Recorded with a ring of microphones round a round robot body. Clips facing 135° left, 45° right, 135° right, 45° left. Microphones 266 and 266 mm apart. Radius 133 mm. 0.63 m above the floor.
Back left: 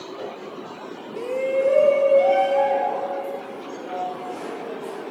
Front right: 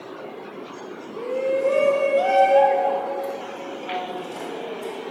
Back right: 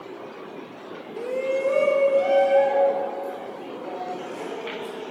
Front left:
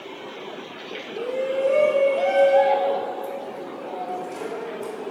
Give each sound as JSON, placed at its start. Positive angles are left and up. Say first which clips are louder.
{"t": 1.2, "sound": "a shout", "louder": "even, front left 1 dB", "azimuth_deg": 160, "distance_m": 0.6}